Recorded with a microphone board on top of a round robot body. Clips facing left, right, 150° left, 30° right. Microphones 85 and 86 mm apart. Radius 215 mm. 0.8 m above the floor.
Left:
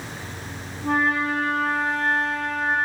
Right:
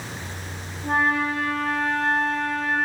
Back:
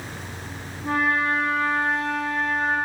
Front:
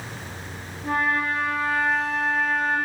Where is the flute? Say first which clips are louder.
Even, back 1 dB; 85° left, 3.5 m.